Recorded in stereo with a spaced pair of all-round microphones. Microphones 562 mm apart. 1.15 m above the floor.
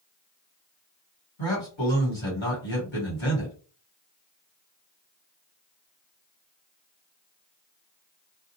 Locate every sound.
1.4 s a man speaking: 55° left (ahead or behind), 1.6 m